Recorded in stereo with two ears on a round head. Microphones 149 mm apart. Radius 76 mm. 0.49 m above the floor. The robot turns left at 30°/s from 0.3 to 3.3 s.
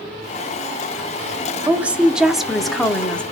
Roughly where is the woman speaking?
Centre.